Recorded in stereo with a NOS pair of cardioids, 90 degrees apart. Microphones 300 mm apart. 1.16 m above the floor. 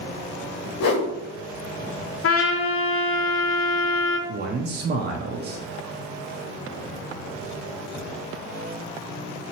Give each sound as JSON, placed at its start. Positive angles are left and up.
{"t": 0.8, "sound": "a whoosh", "azimuth_deg": 55, "distance_m": 0.9}
{"t": 2.2, "sound": "a trumpet", "azimuth_deg": 50, "distance_m": 0.8}
{"t": 4.3, "sound": "a man speaking", "azimuth_deg": -35, "distance_m": 0.7}